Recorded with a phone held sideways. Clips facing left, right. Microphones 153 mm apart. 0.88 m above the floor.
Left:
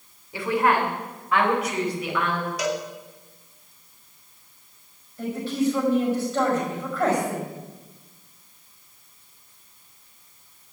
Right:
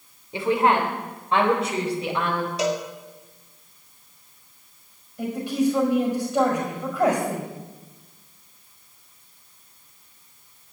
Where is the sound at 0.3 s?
25° right (ahead or behind), 2.5 m; by 2.5 s 30° right (ahead or behind), 4 m.